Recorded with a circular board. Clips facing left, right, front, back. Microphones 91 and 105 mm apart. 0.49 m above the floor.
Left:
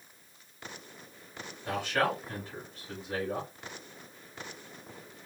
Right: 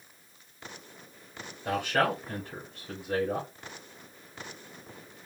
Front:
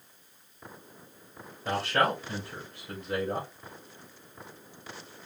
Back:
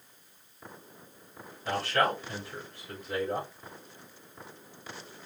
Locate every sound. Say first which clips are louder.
1.6 s a man speaking: right 2 dB, front 1 dB; 65° right, 2.5 m